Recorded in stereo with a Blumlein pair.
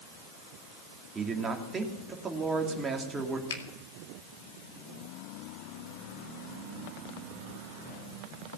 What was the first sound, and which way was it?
A man speaking, 15° right.